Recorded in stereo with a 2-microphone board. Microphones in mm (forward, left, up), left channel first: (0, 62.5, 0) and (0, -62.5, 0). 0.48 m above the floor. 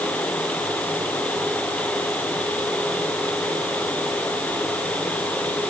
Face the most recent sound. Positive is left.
No sound to turn to.